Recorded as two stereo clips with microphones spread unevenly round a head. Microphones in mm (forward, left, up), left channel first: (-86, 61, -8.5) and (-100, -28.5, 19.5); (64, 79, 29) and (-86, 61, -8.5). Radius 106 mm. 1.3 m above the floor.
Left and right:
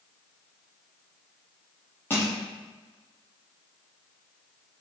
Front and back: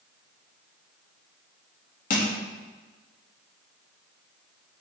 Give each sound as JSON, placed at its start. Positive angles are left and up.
{"t": 2.1, "sound": "crushing", "azimuth_deg": -5, "distance_m": 1.1}